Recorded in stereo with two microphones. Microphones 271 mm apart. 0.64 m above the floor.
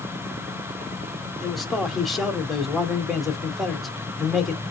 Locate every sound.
1.4 s a man speaking: centre (ahead or behind), 1.4 m